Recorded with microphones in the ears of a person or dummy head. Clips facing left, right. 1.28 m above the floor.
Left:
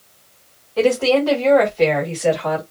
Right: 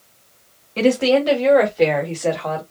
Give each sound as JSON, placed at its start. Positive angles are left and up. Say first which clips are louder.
{"t": 0.8, "sound": "a woman speaking", "louder": "even", "side_deg": -35, "distance_m": 1.2}